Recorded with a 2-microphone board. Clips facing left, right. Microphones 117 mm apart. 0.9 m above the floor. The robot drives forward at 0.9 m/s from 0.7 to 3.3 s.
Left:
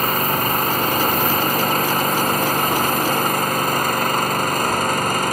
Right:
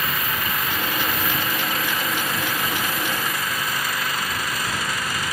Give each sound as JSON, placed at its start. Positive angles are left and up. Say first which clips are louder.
{"t": 0.0, "sound": "an engine running", "louder": "left 7 dB", "side_deg": 45}